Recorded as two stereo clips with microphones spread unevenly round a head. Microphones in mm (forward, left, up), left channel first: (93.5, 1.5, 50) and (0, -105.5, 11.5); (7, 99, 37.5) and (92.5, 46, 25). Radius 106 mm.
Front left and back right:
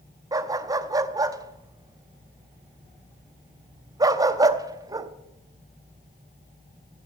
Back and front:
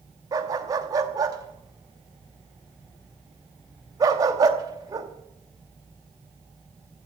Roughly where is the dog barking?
Ahead right.